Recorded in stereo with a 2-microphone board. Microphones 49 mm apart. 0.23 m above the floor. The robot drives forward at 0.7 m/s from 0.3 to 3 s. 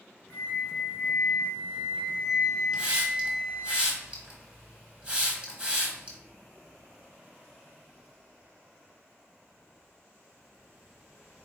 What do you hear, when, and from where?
0.3 s a flute: 45° left (ahead or behind), 0.9 m; by 3.7 s 20° left (ahead or behind), 1.6 m
2.7 s a hiss: 25° right (ahead or behind), 1.1 m; by 6.2 s 20° right (ahead or behind), 1.1 m